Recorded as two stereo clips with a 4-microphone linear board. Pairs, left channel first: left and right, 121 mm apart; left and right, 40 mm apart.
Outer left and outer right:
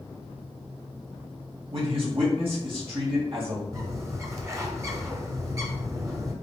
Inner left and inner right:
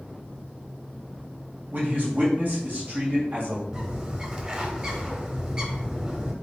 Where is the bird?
30° right (ahead or behind), 0.8 m.